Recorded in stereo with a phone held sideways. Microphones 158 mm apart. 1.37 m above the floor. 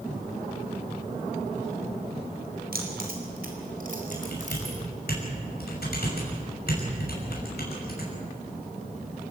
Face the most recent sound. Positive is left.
turn(degrees=80)